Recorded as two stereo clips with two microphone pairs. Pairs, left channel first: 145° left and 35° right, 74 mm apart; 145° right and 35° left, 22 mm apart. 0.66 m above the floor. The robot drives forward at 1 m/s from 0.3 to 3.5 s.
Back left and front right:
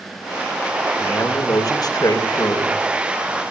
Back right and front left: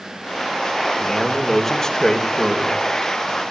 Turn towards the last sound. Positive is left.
turn(degrees=160)